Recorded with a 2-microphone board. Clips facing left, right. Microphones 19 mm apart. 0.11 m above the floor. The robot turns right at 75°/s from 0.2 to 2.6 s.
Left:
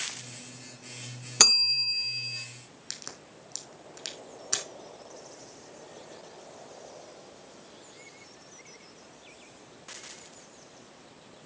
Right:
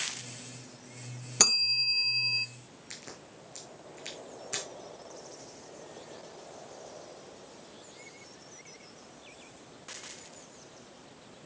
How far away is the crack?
About 4.5 m.